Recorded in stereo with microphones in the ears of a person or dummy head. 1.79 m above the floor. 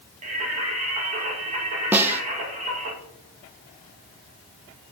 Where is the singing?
50° right (ahead or behind), 2.5 m.